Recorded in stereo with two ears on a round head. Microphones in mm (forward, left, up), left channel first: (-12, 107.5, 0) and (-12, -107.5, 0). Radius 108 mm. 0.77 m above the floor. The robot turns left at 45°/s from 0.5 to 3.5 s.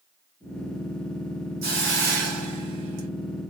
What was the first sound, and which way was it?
A hiss, 40° right.